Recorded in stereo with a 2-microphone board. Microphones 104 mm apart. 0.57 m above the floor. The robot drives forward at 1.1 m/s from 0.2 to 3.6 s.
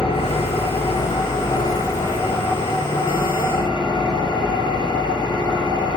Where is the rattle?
I don't hear a rattle.